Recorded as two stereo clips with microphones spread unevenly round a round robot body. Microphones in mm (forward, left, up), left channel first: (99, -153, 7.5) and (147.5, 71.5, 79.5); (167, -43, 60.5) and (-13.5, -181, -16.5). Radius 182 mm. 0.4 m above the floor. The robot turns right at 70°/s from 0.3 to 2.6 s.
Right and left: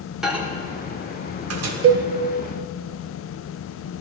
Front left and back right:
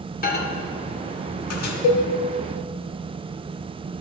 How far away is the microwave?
About 0.9 m.